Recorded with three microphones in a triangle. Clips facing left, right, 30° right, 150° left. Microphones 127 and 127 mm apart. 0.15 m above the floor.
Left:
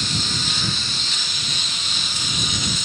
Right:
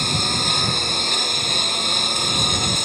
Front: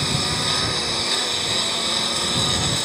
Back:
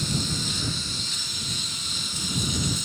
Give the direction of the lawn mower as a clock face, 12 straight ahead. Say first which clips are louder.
Right 4 dB, front 4 dB; 2 o'clock.